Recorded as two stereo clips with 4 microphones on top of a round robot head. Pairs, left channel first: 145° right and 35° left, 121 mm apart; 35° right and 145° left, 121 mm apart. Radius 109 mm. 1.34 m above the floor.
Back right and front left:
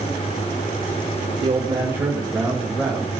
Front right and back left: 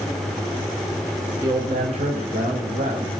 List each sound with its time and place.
1.4 s a man speaking: 85° left, 1.6 m; by 3.1 s 135° left, 3 m